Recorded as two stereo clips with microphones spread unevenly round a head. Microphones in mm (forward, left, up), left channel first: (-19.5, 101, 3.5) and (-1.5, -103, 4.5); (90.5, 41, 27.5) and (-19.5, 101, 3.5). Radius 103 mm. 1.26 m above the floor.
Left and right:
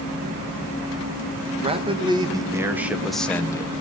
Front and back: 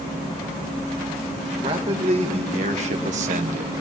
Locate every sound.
1.6 s a man speaking: 150° right, 1.5 m; by 3.7 s 165° left, 0.8 m